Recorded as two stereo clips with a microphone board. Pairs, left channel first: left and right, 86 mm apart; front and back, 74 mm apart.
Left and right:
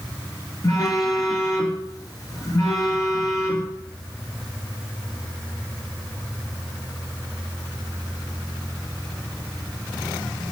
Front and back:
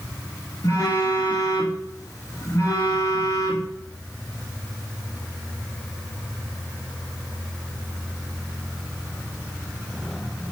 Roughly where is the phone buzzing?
Ahead left.